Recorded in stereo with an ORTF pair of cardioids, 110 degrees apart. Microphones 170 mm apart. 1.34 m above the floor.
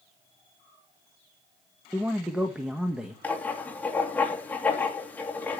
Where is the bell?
No bell in this recording.